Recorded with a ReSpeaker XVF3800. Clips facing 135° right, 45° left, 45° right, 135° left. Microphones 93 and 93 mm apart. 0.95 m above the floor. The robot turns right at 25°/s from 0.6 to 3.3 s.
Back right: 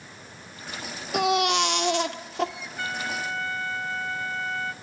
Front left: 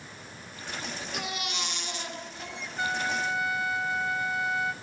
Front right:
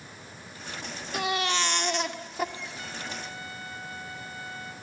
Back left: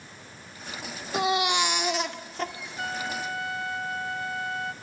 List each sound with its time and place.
1.1 s a baby crying: 160° right, 2 m; by 2.5 s 125° right, 2 m
2.8 s a trumpet: 115° left, 1.9 m; by 4.7 s 125° left, 1.9 m